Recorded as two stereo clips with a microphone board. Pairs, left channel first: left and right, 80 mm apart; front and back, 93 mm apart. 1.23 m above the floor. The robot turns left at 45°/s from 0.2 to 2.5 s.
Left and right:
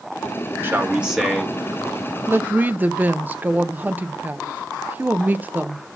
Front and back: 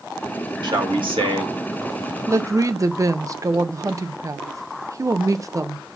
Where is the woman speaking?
140° right, 0.6 m; by 5.9 s 150° right, 0.6 m.